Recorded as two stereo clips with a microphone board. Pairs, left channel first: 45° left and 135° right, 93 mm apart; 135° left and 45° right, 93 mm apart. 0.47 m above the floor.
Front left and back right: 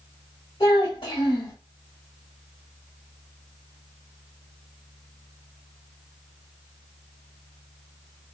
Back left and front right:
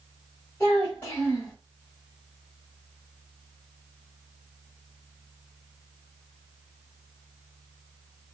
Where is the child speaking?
65° left, 1.2 m.